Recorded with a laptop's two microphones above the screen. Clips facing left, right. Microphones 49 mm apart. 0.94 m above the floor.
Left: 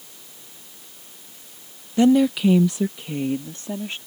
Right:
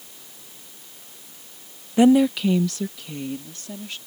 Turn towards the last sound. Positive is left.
turn(degrees=35)  # may be behind; listen again after turning